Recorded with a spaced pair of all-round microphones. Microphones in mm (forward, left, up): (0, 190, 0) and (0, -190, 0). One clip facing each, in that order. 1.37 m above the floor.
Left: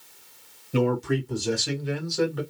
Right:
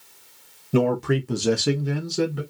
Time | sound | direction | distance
0.7 | a man speaking | 60° right (ahead or behind) | 1.2 m